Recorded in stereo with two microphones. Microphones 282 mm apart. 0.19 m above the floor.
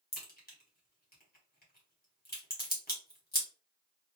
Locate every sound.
0.1 s a crack: 30° left (ahead or behind), 1.4 m